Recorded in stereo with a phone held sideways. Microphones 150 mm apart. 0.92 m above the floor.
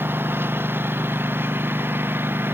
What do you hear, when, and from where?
0.0 s a lawn mower: 15° right (ahead or behind)